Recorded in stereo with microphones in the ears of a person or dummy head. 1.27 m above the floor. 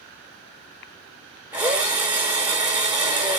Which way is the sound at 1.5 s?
10° right (ahead or behind).